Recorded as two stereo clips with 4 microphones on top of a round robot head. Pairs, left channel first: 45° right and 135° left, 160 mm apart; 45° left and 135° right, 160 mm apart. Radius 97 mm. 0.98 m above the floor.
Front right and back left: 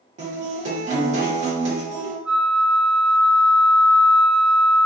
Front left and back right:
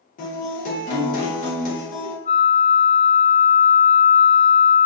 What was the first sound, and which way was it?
A guitar, 90° left.